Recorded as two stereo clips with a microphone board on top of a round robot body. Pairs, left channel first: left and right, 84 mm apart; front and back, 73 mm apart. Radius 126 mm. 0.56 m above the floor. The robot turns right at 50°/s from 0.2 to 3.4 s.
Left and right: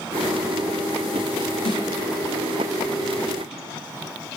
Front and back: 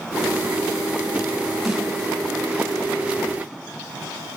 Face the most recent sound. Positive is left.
turn(degrees=180)